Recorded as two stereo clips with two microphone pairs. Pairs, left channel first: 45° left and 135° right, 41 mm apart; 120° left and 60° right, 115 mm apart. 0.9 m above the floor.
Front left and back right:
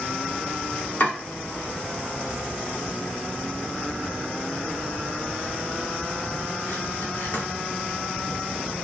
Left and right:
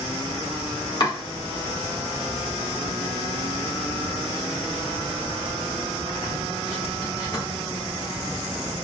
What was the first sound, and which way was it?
Chopping, 75° left.